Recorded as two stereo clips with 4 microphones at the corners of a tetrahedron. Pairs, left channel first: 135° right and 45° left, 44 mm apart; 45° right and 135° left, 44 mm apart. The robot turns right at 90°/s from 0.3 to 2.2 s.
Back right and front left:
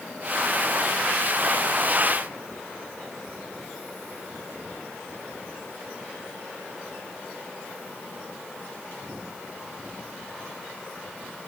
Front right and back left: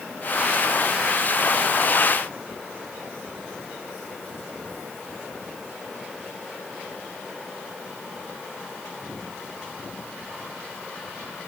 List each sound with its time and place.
Only background noise.